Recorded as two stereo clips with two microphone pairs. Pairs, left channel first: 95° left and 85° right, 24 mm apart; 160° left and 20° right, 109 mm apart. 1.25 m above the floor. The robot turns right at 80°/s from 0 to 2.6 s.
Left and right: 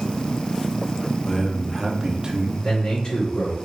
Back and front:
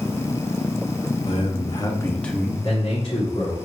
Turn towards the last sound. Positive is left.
turn(degrees=130)